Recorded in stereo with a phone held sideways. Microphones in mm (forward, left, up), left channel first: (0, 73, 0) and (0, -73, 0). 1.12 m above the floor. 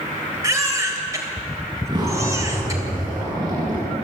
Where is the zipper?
30° right (ahead or behind), 9 m.